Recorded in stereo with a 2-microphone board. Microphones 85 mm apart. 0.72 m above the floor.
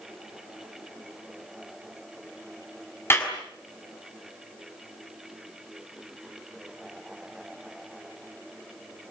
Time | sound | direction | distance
3.1 | a clap | 25° left (ahead or behind) | 6 m